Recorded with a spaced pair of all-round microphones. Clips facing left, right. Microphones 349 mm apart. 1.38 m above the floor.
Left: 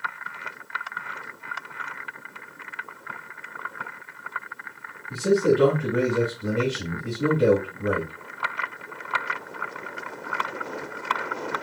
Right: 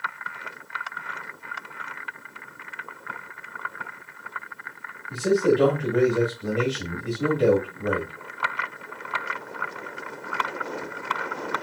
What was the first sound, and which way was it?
A man speaking, 10° left (ahead or behind).